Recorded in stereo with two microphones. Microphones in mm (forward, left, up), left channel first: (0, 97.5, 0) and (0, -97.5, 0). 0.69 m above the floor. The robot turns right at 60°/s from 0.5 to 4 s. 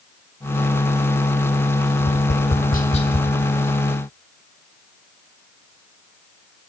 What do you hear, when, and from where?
2.0 s tapping: 85° left, 1.0 m; by 3.3 s 15° left (ahead or behind), 1.0 m